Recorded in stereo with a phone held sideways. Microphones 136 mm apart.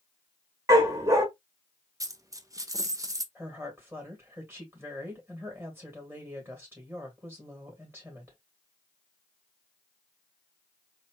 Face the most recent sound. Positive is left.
turn(degrees=-15)  # may be behind; listen again after turning